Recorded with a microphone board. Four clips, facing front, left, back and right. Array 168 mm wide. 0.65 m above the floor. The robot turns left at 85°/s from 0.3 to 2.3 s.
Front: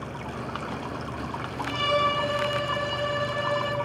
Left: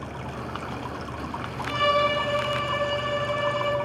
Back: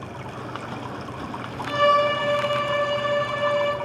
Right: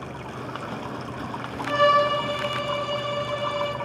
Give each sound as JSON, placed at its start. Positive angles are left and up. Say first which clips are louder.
{"t": 1.7, "sound": "a violin", "louder": "right 4 dB, back 6 dB", "azimuth_deg": -115, "distance_m": 4.5}